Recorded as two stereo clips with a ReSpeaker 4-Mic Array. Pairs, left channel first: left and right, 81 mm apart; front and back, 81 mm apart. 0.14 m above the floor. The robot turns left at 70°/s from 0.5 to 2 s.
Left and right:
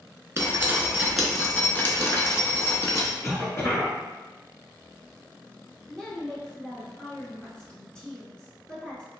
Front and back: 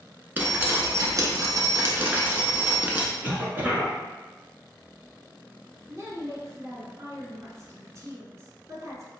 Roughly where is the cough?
Behind left.